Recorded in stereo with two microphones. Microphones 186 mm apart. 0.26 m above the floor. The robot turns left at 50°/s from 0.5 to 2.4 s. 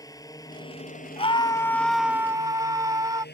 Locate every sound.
0.0 s a drone: 160° left; by 3.4 s 65° left
1.2 s a scream: 40° left; by 3.2 s 25° right